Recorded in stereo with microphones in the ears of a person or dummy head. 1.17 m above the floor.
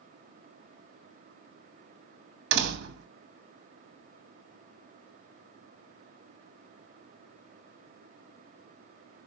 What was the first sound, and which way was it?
A door slam, 65° right (ahead or behind).